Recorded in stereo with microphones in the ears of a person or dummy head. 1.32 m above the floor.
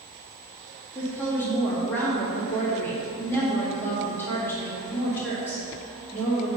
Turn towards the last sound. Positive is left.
turn(degrees=15)  # may be behind; listen again after turning